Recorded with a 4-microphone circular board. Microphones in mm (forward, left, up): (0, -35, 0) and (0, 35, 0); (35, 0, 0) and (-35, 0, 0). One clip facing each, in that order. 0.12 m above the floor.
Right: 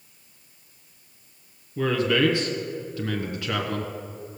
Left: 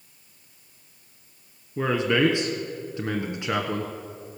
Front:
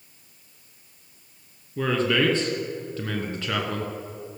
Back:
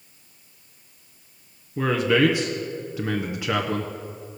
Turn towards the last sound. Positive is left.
turn(degrees=120)